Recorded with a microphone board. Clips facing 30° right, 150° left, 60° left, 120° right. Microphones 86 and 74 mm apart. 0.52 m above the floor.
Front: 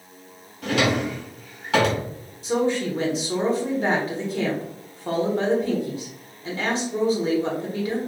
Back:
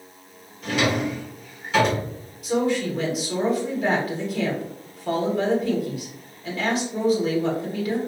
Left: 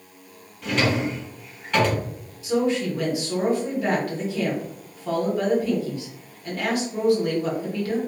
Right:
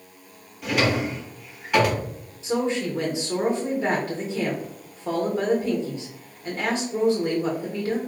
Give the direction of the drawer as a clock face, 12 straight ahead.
1 o'clock.